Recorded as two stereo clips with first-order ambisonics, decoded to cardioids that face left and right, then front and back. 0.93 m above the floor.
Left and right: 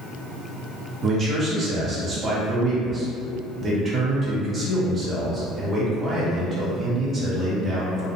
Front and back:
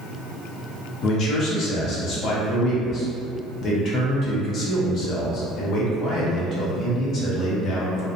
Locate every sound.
1.0 s a man speaking: 30° right, 0.6 m